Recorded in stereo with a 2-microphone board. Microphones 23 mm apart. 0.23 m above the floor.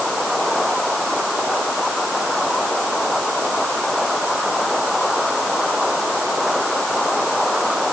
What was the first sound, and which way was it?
Only background noise.